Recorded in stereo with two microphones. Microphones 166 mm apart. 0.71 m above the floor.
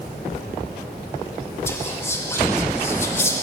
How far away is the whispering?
About 0.8 m.